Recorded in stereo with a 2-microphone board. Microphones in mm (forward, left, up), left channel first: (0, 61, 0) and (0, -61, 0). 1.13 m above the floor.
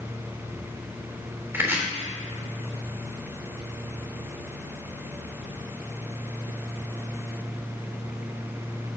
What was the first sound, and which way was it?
Chopping, 20° right (ahead or behind).